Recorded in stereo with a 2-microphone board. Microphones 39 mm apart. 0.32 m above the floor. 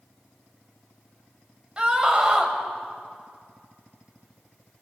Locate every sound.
1.8 s a scream: 30° right (ahead or behind), 1.8 m